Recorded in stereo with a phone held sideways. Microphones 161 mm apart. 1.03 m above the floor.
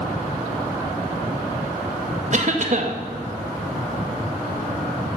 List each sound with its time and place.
2.3 s a cough: 50° right (ahead or behind), 1.8 m